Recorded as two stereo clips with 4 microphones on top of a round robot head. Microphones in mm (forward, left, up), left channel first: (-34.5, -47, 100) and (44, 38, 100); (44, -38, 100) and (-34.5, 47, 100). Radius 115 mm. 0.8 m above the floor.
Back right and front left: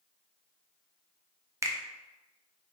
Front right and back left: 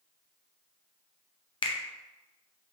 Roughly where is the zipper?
No zipper in this recording.